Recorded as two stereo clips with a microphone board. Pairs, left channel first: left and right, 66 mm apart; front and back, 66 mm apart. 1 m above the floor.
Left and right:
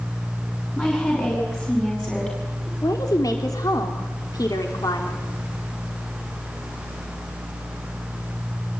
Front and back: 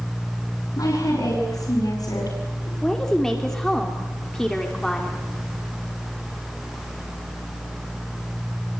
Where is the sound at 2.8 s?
80° left, 3 m.